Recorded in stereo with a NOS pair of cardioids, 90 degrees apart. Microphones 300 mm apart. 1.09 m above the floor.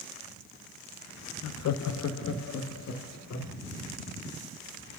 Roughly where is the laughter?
Ahead left.